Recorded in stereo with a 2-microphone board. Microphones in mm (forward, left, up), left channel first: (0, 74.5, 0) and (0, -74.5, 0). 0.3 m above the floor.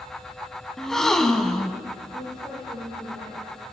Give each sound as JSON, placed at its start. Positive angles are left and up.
{"t": 0.8, "sound": "a gasp", "side_deg": 5, "distance_m": 1.5}
{"t": 2.1, "sound": "a woman speaking", "side_deg": 0, "distance_m": 9.0}